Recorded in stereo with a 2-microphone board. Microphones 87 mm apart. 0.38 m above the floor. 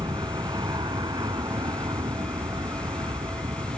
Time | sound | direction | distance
0.0 | an aircraft | 55° right (ahead or behind) | ?